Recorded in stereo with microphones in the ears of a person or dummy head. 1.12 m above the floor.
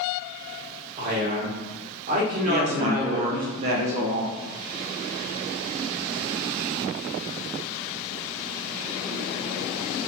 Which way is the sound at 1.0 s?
45° right (ahead or behind).